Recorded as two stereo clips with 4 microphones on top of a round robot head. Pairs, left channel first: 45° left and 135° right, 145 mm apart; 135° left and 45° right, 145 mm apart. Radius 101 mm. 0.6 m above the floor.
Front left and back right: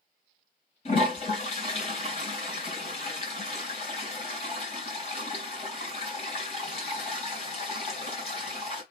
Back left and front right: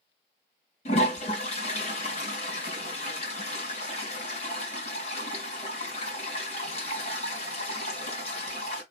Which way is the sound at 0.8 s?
90° left.